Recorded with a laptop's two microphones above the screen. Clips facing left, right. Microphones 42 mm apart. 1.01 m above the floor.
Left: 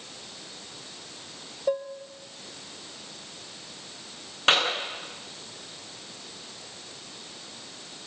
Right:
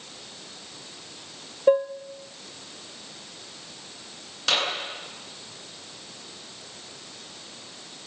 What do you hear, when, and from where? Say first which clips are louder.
1.7 s dishes clattering: right 8 dB; 35° right (ahead or behind), 1.0 m
4.5 s a clap: left 3 dB; 30° left (ahead or behind), 10 m